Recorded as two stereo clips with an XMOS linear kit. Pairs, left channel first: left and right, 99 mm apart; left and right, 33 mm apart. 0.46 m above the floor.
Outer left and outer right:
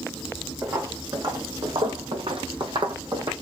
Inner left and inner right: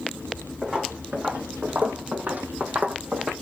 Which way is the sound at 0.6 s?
30° right (ahead or behind).